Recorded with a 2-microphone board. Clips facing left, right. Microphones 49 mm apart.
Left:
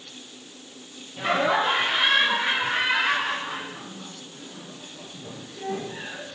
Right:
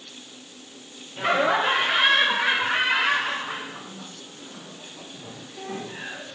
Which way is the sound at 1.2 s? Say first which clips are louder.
Right 1 dB; 30° right (ahead or behind).